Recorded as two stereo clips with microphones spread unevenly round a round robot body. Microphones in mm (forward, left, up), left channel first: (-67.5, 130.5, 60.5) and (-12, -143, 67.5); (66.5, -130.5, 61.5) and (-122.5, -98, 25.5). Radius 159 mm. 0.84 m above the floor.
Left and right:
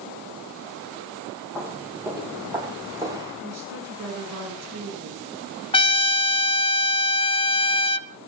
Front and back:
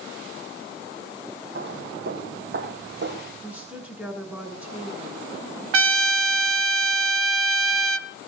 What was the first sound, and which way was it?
Footsteps, 160° right.